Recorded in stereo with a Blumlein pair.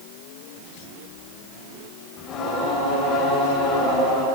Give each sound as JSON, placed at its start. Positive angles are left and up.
{"t": 2.2, "sound": "singing", "azimuth_deg": 30, "distance_m": 8.5}